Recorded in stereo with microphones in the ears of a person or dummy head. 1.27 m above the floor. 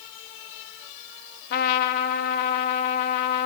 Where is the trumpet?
55° left (ahead or behind), 1.5 m.